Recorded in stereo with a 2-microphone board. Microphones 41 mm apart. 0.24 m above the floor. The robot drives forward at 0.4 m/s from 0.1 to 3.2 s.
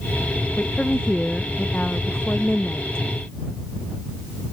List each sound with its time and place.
0.6 s a woman speaking: 25° left (ahead or behind)